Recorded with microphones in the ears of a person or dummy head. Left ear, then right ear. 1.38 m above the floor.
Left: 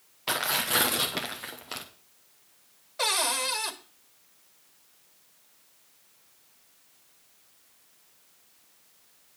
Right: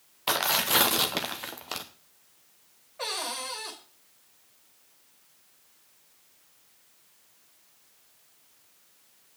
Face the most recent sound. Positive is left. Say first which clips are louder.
# left 6 dB
turn(degrees=75)  # may be behind; listen again after turning